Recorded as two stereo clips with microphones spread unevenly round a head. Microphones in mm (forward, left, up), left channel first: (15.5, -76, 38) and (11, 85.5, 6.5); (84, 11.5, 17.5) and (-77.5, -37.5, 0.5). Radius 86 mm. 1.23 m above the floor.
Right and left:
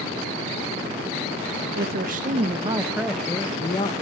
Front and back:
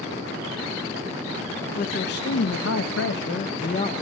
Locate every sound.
1.8 s a man speaking: 60° left, 0.9 m; by 3.9 s 35° right, 0.8 m